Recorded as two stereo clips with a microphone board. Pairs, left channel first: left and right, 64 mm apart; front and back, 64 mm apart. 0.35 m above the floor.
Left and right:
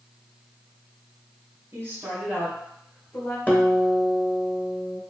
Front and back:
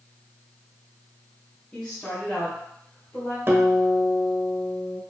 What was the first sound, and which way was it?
A woman speaking, 70° right.